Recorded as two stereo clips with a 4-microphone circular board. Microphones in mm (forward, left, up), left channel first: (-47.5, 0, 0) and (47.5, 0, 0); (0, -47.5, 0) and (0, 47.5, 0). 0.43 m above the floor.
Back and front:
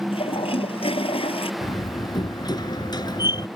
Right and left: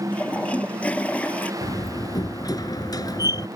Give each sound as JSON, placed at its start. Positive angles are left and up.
{"t": 0.1, "sound": "a toilet flushing", "azimuth_deg": -165}
{"t": 1.6, "sound": "a door slam", "azimuth_deg": -140}